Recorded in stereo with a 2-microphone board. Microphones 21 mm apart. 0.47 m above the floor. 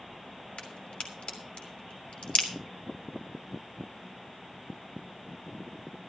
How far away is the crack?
About 2.5 m.